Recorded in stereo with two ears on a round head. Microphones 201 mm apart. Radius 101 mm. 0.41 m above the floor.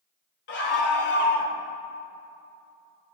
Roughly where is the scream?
Left.